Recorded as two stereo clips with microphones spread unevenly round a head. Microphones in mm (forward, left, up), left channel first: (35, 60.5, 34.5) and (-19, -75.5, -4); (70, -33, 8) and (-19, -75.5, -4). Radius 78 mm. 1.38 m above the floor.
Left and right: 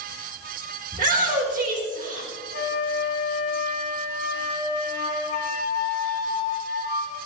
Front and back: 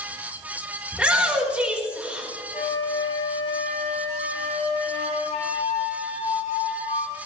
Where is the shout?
75° right, 4.5 m.